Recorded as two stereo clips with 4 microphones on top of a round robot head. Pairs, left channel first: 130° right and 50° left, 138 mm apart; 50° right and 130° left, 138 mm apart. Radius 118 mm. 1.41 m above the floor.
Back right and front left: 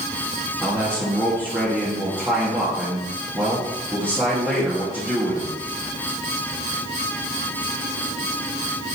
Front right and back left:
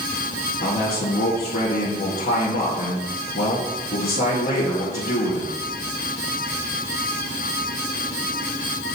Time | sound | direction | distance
0.6 | a man speaking | 25° right | 2.5 m